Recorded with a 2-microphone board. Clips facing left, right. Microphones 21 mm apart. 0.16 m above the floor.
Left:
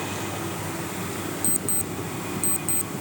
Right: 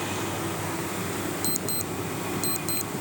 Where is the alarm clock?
55° right (ahead or behind).